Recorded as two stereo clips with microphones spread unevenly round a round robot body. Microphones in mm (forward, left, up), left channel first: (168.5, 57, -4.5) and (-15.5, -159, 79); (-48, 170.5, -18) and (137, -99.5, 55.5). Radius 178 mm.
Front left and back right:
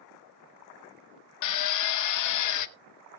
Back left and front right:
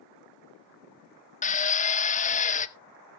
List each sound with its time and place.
1.4 s a drill: 60° left, 0.7 m